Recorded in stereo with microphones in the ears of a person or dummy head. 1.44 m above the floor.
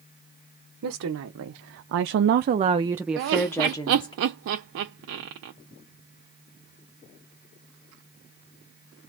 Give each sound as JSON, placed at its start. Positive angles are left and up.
{"t": 0.8, "sound": "a woman speaking", "side_deg": -75, "distance_m": 1.0}
{"t": 3.2, "sound": "laughter", "side_deg": -65, "distance_m": 0.5}